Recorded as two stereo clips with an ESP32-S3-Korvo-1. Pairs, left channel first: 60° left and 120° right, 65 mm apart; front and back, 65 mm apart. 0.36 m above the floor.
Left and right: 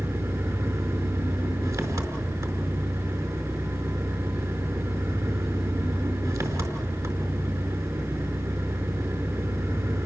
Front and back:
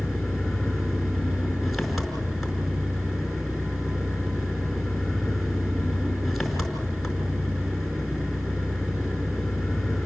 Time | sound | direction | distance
0.0 | an engine running | 90° right | 5 m